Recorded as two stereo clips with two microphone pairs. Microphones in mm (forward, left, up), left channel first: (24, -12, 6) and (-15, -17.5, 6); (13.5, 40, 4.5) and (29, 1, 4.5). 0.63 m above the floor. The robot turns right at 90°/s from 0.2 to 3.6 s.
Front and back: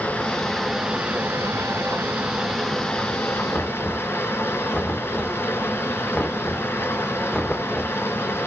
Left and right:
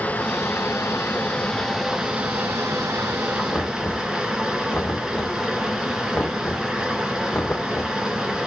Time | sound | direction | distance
0.0 | running water | 60° left | 2.5 m
3.5 | knocking | 65° left | 1.6 m